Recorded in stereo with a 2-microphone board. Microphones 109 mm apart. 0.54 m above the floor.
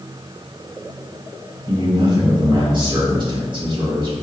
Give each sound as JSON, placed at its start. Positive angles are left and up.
{"t": 1.7, "sound": "a man speaking", "side_deg": -50, "distance_m": 1.6}